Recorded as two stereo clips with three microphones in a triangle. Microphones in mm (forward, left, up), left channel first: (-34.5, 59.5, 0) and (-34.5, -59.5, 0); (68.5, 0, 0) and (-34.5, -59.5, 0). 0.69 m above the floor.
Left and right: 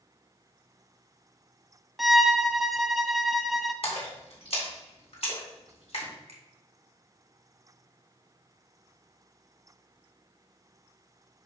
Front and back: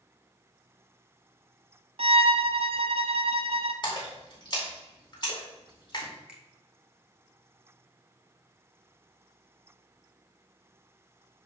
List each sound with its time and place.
2.0 s a violin: straight behind, 0.5 m
3.8 s a splash: 70° left, 2.5 m
6.3 s a finger snap: 70° right, 1.6 m